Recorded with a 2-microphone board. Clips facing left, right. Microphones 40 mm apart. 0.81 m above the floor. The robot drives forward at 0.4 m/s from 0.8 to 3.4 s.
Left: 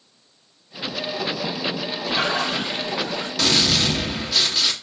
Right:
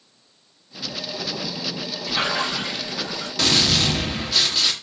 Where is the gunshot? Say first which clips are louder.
Even; centre (ahead or behind), 0.6 m.